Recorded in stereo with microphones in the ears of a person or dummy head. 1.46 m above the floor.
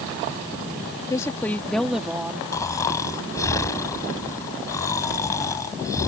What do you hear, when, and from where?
1.1 s a woman speaking: 20° left (ahead or behind); by 2.4 s 10° right (ahead or behind)
2.5 s snoring: 15° left (ahead or behind)